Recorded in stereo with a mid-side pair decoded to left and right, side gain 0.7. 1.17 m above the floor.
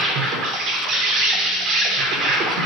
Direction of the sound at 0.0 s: 55° right.